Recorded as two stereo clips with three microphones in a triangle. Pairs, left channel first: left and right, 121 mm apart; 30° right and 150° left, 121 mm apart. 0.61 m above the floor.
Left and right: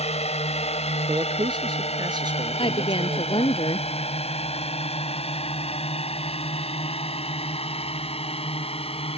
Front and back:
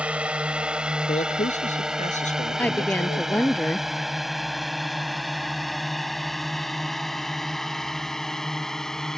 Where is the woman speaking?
45° left.